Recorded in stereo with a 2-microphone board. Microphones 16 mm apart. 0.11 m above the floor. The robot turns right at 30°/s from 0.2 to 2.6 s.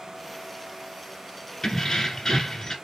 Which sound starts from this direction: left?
Keys jangling, at 1.6 s.